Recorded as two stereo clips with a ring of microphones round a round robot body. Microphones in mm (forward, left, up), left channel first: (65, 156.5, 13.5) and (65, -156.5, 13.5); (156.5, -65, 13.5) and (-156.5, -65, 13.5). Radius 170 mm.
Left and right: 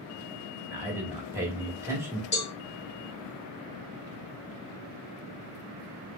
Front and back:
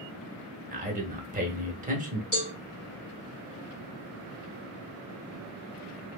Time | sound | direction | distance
0.7 | a man speaking | 160° right | 1.0 m
2.3 | a cowbell | 50° left | 2 m